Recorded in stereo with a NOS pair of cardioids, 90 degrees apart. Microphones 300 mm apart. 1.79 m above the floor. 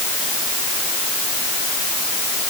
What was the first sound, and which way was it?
Only background noise.